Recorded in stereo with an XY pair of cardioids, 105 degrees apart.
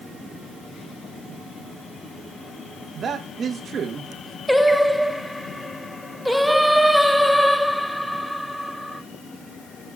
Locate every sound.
3.0 s a man speaking: 45° right, 1.3 m
4.5 s singing: straight ahead, 0.6 m